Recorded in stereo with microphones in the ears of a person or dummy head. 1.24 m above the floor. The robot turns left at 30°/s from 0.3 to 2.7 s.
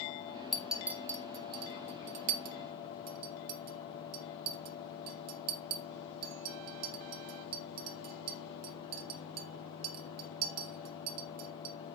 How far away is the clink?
About 0.6 m.